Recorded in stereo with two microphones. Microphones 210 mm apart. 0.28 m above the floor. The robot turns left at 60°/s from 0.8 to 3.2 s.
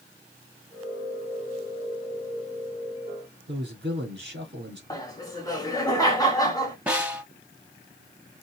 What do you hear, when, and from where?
3.5 s a man speaking: 55° right (ahead or behind), 3.5 m
4.9 s laughter: 15° left (ahead or behind), 1.6 m
6.9 s a snare drum: 5° right (ahead or behind), 1.3 m